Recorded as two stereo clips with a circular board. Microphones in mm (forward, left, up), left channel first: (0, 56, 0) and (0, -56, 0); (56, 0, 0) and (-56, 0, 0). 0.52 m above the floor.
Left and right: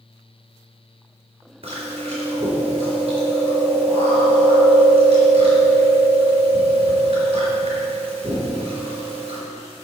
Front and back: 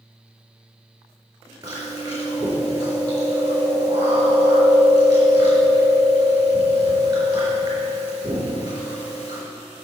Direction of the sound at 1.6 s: 125° right.